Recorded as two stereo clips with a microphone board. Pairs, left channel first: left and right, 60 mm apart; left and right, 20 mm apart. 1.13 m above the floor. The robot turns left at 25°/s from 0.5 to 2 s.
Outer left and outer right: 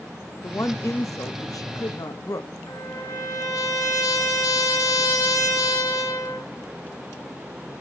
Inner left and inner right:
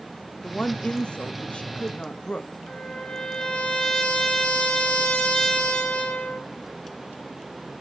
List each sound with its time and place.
0.4 s a woman speaking: 130° left, 1.1 m; by 2.5 s 90° left, 1.1 m
2.7 s a trumpet: 85° left, 5.5 m